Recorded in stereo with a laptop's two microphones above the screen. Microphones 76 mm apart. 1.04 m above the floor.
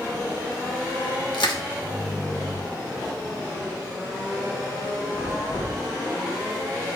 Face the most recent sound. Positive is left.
turn(degrees=80)